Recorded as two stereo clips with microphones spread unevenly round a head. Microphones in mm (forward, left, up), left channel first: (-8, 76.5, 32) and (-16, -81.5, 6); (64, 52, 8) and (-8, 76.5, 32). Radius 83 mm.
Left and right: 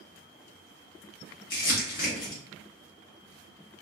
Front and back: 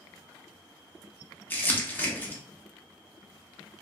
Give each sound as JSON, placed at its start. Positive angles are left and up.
{"t": 1.5, "sound": "crumpling", "azimuth_deg": 50, "distance_m": 0.8}